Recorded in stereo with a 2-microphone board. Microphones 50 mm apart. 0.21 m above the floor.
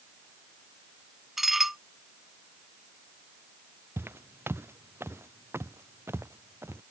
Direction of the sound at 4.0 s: 50° right (ahead or behind).